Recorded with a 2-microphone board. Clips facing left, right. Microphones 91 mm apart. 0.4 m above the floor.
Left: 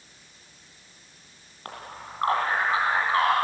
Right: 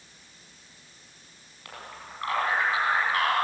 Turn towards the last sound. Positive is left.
turn(degrees=30)  # may be behind; listen again after turning